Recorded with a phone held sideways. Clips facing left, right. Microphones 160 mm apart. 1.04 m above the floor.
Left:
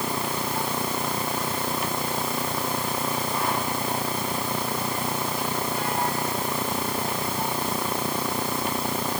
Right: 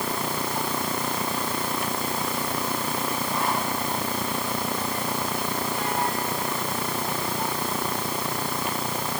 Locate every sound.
Only background noise.